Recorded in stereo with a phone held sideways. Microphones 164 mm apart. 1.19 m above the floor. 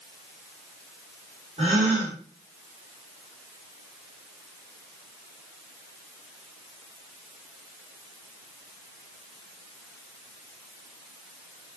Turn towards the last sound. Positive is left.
turn(degrees=-45)  # may be behind; listen again after turning